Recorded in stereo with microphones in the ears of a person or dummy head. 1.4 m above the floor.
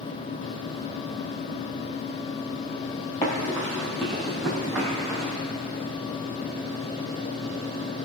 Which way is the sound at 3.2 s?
10° left (ahead or behind).